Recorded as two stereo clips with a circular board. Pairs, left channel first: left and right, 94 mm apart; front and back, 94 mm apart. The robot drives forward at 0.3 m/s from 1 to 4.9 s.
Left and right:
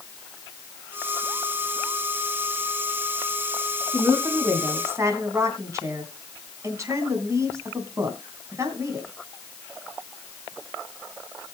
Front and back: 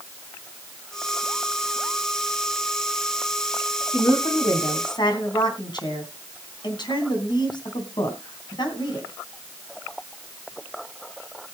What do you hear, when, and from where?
3.9 s a woman speaking: 30° right, 3 m; by 9.1 s 35° right, 3 m